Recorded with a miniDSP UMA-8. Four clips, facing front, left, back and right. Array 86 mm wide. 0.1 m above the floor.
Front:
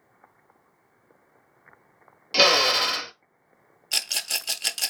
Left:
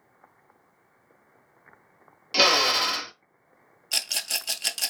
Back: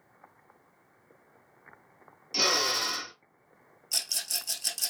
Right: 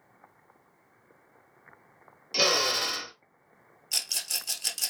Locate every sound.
2.3 s a drill: 30° left, 0.7 m
3.9 s a rattle: 30° left, 0.6 m